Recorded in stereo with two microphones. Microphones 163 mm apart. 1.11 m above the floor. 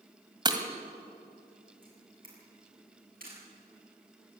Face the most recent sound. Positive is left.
turn(degrees=-55)  # may be behind; listen again after turning